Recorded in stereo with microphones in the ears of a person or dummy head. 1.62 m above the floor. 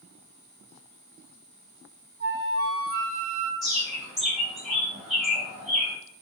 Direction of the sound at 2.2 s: 45° right (ahead or behind).